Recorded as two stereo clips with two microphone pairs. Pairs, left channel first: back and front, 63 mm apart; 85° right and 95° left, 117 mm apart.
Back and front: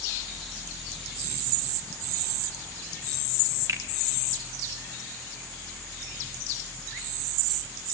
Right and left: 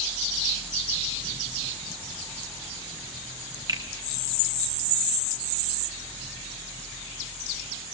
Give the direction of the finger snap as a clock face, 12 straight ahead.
11 o'clock.